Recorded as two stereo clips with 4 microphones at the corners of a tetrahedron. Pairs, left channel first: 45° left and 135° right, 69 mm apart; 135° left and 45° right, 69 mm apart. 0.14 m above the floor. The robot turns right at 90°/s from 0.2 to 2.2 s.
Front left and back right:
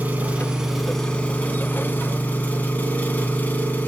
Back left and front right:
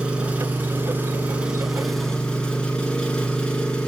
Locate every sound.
0.0 s an engine running: 105° right, 0.9 m; by 3.9 s 75° left, 0.9 m